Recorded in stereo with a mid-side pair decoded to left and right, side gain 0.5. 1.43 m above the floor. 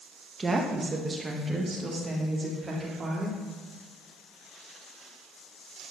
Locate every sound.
0.4 s a woman speaking: 25° right, 1.6 m; by 3.4 s 30° right, 4 m